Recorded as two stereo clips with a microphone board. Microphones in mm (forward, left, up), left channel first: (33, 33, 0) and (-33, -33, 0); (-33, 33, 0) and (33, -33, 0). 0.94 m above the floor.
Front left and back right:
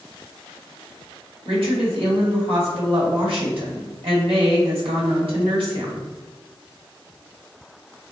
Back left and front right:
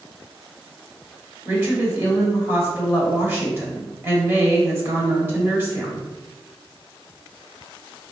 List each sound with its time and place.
1.4 s a woman speaking: 110° right, 1.8 m